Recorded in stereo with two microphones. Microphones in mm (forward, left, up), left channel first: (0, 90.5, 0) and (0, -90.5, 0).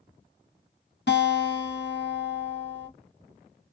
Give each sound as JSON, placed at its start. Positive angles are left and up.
{"t": 1.1, "sound": "a guitar", "side_deg": 70, "distance_m": 0.8}